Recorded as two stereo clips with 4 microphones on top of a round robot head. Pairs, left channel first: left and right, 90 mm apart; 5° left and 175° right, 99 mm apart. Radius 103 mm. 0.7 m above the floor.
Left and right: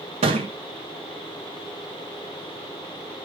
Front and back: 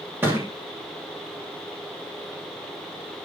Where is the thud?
100° right, 1.3 m.